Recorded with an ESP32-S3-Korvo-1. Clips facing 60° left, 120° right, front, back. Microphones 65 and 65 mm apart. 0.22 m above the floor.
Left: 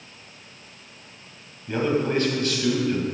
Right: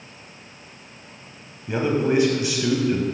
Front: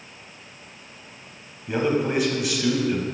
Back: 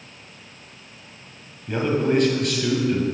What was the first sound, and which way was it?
A man speaking, 70° right.